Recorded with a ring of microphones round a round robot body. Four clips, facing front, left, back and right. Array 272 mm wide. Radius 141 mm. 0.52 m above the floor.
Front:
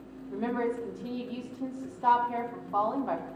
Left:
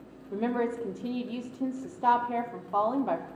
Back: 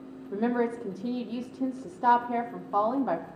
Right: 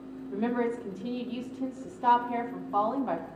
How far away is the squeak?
No squeak in this recording.